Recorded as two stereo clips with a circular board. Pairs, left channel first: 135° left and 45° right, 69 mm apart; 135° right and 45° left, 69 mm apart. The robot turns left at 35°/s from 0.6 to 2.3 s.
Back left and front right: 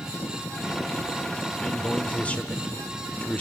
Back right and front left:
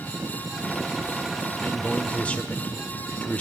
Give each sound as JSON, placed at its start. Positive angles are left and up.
{"t": 1.6, "sound": "a man speaking", "azimuth_deg": -160, "distance_m": 0.9}